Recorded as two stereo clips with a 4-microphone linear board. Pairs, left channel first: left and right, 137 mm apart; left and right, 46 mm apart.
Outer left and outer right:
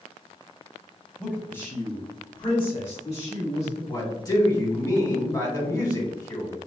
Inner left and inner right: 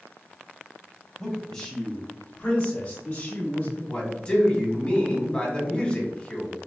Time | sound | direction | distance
1.2 | a man speaking | 5° left (ahead or behind) | 1.6 m
3.9 | a man speaking | 25° left (ahead or behind) | 1.6 m